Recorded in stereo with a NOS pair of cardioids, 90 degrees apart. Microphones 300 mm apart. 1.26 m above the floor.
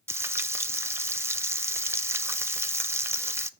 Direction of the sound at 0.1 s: 10° right.